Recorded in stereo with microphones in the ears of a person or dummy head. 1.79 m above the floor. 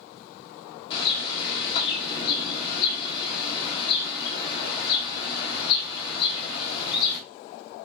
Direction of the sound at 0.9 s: 30° left (ahead or behind).